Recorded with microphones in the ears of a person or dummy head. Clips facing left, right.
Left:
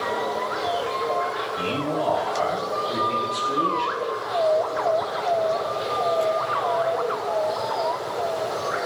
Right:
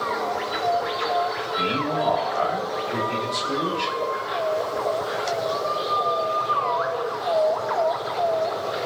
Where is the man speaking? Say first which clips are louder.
Even; 5° left (ahead or behind), 3 m.